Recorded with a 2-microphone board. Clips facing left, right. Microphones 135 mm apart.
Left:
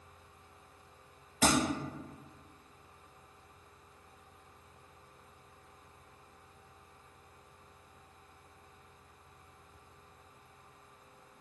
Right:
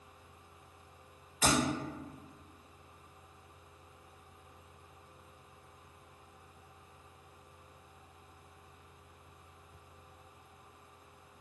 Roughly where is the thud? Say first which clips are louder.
Left 2 dB; left.